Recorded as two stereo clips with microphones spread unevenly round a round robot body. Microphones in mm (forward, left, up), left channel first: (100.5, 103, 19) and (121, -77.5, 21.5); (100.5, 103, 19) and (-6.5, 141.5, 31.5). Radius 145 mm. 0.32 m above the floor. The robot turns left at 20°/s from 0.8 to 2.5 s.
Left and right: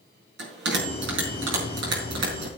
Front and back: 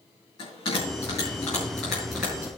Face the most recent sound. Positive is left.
turn(degrees=-120)